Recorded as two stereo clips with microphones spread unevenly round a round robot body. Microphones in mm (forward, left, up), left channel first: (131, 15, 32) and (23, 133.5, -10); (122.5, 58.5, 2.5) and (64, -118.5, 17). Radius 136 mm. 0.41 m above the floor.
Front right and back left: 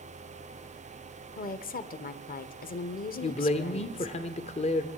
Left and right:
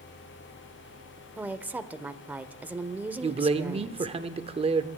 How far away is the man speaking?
About 1.1 m.